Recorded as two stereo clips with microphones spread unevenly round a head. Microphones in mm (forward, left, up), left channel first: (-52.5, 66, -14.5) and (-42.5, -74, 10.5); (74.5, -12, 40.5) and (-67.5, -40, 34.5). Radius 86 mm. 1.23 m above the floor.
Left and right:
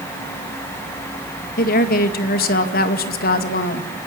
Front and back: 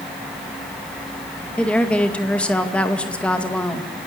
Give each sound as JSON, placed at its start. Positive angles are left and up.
{"t": 1.6, "sound": "a woman speaking", "azimuth_deg": 95, "distance_m": 2.0}